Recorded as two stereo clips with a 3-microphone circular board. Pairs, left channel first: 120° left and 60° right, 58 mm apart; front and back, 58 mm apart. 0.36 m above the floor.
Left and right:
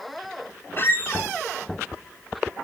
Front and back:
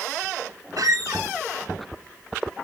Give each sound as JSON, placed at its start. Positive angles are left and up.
{"t": 0.8, "sound": "a squeak", "azimuth_deg": 170, "distance_m": 1.5}